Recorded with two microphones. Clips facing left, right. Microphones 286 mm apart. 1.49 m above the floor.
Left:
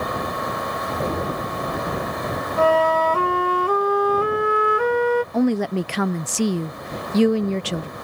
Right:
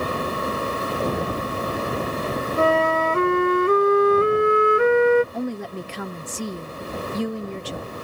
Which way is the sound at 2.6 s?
25° right (ahead or behind).